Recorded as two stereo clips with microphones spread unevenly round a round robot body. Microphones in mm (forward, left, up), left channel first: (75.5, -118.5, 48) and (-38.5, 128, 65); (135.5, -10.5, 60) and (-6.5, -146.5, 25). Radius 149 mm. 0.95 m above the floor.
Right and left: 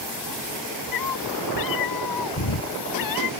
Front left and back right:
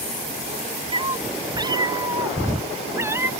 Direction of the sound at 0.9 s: 70° right.